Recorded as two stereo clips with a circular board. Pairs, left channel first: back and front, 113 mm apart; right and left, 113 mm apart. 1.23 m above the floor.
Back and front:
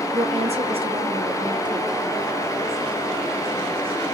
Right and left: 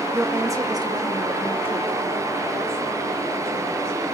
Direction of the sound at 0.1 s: 20° left.